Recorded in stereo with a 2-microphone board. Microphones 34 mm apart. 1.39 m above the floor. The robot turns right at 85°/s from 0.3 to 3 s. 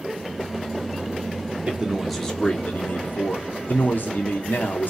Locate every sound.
1.7 s a man speaking: 35° right, 0.7 m; by 4.9 s 75° left, 0.7 m